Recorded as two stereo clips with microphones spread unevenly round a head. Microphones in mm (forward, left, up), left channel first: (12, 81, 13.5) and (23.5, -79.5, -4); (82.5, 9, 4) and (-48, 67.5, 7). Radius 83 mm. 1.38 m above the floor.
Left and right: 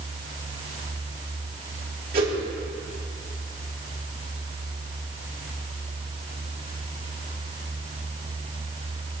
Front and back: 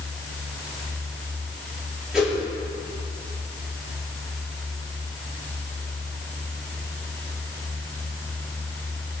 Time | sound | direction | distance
2.1 | a whoosh | 120° right | 6 m